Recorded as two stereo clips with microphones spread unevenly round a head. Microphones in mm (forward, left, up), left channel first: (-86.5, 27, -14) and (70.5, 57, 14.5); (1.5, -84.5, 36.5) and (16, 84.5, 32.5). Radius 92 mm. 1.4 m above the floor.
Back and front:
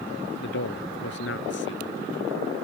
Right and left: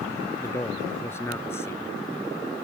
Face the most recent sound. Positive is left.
turn(degrees=-170)